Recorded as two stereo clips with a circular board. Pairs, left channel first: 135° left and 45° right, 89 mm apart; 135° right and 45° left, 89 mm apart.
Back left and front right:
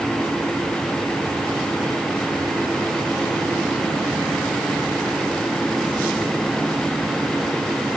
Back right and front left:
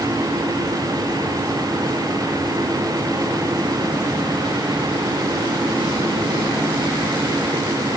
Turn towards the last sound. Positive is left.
No sound to turn to.